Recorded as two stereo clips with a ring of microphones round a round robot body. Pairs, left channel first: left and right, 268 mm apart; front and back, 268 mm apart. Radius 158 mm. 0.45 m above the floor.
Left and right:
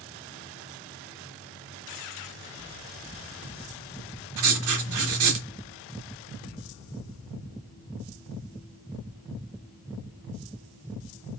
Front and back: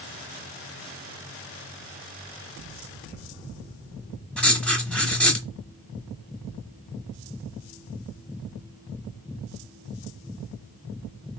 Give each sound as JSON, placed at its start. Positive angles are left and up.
{"t": 4.4, "sound": "writing", "azimuth_deg": -85, "distance_m": 1.3}